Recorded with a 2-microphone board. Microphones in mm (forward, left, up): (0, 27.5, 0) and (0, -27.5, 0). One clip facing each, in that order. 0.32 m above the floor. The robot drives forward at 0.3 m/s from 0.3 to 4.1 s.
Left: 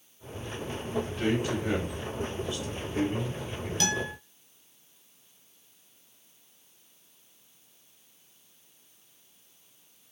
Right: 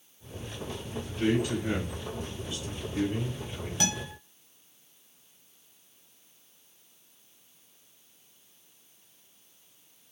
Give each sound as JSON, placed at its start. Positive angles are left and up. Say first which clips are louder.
{"t": 1.1, "sound": "a man speaking", "louder": "right 4 dB", "side_deg": 40, "distance_m": 2.0}
{"t": 3.8, "sound": "a guitar", "louder": "left 3 dB", "side_deg": -15, "distance_m": 0.8}